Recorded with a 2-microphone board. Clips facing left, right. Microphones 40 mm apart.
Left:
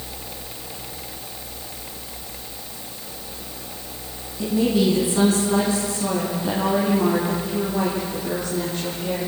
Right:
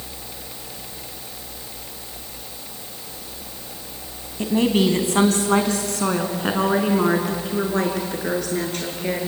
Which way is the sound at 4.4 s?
60° right (ahead or behind).